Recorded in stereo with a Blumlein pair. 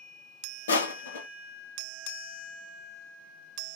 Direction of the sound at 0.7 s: 70° left.